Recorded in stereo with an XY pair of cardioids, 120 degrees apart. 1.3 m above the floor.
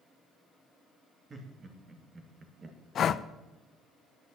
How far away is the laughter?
About 3 m.